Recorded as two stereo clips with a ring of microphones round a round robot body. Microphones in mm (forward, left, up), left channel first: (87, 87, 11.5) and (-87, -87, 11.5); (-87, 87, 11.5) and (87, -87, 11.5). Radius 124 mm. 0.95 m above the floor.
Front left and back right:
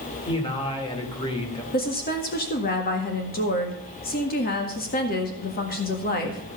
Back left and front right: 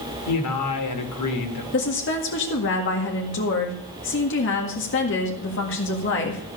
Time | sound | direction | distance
0.3 | a man speaking | 115° left | 2.5 m
1.7 | a woman speaking | 95° left | 1.8 m